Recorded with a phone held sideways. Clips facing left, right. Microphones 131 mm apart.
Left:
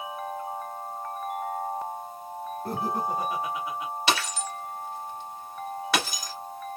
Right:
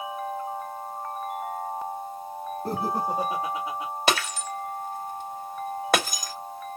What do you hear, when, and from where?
2.6 s laughter: 25° right (ahead or behind), 1.5 m; by 3.9 s 20° right (ahead or behind), 2.5 m
4.1 s breaking glass: 45° right (ahead or behind), 2.5 m